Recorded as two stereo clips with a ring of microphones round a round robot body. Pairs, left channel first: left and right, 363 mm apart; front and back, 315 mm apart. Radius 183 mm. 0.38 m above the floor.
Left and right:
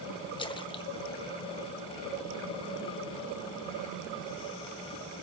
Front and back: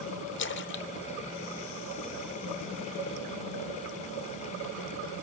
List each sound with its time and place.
0.4 s a splash: 20° left, 1.0 m